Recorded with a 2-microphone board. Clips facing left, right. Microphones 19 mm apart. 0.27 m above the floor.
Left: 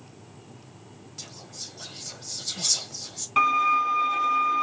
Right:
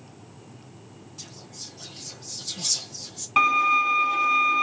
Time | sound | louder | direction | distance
1.2 | whispering | left 1 dB | 30° left (ahead or behind) | 1.3 m
3.4 | a violin | right 1 dB | 15° right (ahead or behind) | 1.2 m